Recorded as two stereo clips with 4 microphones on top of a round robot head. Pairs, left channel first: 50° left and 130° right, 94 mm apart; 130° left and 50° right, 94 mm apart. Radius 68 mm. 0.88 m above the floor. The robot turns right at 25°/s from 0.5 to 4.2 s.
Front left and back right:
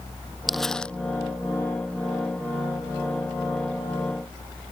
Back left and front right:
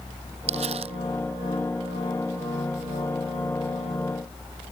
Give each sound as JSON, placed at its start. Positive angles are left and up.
{"t": 0.5, "sound": "crumpling", "azimuth_deg": -40}